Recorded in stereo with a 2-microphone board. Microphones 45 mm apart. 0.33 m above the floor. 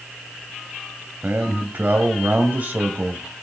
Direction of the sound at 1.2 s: 40° right (ahead or behind).